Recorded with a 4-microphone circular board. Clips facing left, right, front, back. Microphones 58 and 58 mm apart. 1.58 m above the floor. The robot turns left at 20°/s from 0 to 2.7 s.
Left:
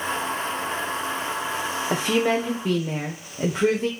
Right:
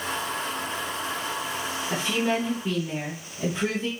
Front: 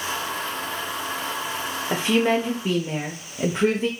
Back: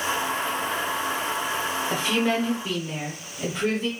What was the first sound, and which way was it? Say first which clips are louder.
A woman speaking: left 4 dB, front 5 dB; 70° left.